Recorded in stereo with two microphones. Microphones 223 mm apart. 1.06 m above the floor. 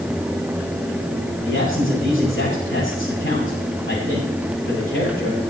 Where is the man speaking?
65° left (ahead or behind), 9.5 m.